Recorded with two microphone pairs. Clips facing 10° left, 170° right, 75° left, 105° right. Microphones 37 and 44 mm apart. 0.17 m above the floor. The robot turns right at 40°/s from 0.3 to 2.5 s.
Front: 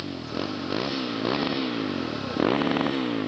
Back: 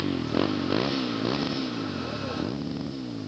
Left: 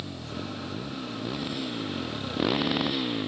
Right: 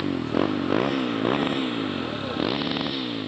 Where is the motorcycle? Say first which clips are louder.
Back 5 dB, right 13 dB; 105° right; by 3.3 s 15° right.